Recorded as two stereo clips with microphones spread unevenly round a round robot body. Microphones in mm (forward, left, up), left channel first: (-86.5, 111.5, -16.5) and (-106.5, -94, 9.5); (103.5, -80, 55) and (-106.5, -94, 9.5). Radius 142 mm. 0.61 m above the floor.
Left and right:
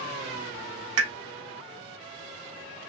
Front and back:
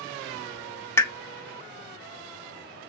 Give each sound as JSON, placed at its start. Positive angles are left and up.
{"t": 1.0, "sound": "a pop", "azimuth_deg": -75, "distance_m": 0.5}